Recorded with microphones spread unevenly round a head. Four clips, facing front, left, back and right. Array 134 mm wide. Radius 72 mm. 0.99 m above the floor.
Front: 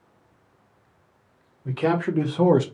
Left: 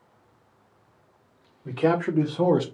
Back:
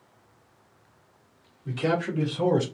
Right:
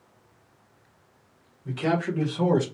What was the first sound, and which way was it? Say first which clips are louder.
A man speaking: left 3 dB, front 3 dB; 60° left.